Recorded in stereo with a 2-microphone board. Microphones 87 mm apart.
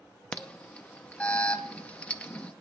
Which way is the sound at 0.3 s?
15° left (ahead or behind).